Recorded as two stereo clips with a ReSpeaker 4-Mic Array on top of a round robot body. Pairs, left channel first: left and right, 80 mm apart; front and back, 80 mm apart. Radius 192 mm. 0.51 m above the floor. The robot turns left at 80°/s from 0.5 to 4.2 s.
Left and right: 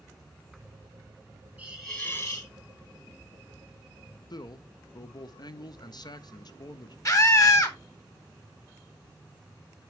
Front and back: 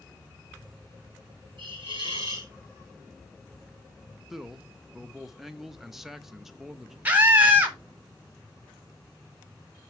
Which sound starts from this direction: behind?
A hiss, at 1.6 s.